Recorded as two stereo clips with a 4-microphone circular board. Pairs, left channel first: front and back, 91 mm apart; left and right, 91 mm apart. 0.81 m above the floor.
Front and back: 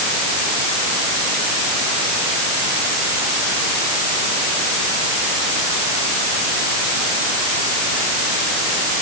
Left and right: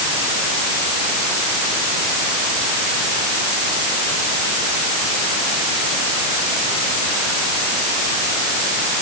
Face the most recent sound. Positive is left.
No sound to turn to.